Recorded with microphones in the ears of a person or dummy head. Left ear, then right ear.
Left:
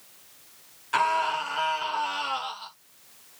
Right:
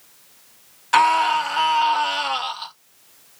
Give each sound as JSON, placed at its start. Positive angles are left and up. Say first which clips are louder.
{"t": 0.9, "sound": "a scream", "louder": "right 8 dB", "side_deg": -25, "distance_m": 0.7}